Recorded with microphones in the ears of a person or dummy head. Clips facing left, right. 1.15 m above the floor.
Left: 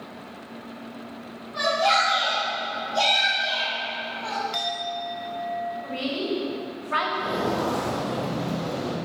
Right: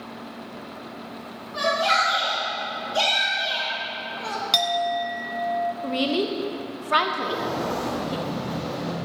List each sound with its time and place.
1.5 s a shout: 35° right (ahead or behind), 3 m; by 4.4 s 45° right (ahead or behind), 1.3 m
4.5 s a clink: 55° right (ahead or behind), 0.5 m
5.8 s a woman speaking: 50° right (ahead or behind), 0.8 m
7.2 s footsteps: 45° left (ahead or behind), 1.6 m; by 8.9 s 40° left (ahead or behind), 3 m